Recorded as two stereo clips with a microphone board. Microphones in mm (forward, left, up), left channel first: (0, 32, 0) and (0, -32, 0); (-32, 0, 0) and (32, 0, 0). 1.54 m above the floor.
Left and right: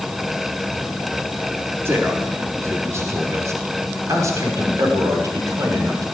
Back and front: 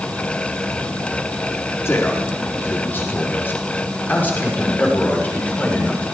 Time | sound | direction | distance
1.9 | a man speaking | 135° right | 4 m